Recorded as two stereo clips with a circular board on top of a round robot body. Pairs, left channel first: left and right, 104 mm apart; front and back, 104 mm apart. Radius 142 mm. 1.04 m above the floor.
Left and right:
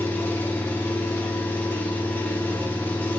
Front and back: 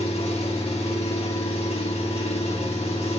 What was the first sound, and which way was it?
An engine running, 20° left.